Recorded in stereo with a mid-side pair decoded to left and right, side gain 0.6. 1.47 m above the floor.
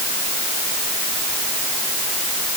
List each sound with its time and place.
Only background noise.